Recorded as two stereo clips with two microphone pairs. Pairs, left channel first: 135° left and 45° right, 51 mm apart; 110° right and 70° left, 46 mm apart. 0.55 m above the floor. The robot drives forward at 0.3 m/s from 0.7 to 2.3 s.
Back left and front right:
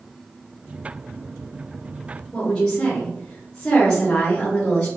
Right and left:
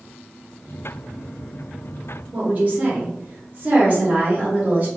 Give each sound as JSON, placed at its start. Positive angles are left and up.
{"t": 2.3, "sound": "a woman speaking", "azimuth_deg": 85, "distance_m": 1.1}